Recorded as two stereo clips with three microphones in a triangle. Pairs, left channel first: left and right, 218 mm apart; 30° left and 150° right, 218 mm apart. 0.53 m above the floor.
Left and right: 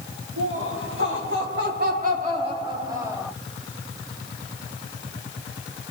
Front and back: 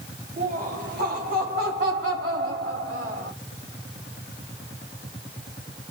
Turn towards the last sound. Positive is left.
turn(degrees=-170)